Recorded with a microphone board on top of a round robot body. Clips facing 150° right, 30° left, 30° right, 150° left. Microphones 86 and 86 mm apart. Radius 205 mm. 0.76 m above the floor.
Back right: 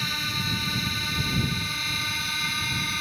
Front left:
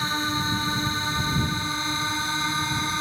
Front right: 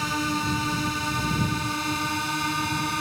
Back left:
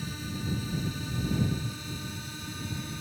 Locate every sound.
0.0 s a drone: 30° right